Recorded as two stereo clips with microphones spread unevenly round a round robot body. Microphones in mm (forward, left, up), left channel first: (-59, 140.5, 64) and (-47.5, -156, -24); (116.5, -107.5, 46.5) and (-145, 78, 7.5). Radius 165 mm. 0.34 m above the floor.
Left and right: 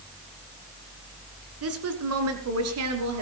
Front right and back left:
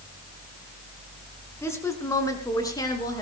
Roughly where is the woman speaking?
Behind right.